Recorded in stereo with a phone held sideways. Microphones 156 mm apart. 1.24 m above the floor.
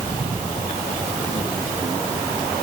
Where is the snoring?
I don't hear snoring.